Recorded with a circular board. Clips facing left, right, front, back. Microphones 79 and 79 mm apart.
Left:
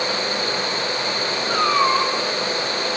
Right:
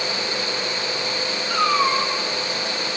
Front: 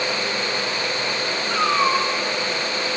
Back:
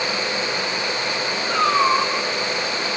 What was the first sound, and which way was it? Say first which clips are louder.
A cat meowing: left 1 dB, back 2 dB; 135° left.